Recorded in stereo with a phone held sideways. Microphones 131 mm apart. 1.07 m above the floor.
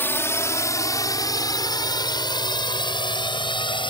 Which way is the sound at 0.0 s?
15° left (ahead or behind).